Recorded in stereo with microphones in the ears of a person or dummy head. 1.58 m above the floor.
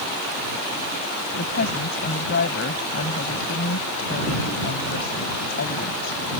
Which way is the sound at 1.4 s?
60° left (ahead or behind).